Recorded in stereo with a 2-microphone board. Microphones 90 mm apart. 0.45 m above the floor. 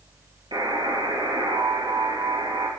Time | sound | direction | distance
0.5 | a buzzer | 65° right (ahead or behind) | 5.5 m